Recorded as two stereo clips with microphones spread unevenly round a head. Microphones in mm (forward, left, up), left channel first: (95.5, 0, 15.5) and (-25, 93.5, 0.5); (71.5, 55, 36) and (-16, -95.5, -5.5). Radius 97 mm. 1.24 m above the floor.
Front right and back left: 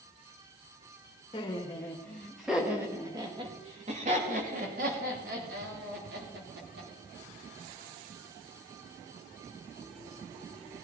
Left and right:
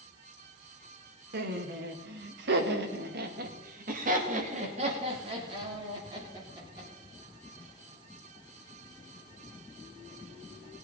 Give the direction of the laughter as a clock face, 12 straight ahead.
4 o'clock.